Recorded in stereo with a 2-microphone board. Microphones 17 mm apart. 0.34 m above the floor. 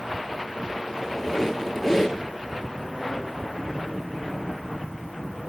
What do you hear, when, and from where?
0.9 s a squeak: 20° left (ahead or behind), 1.7 m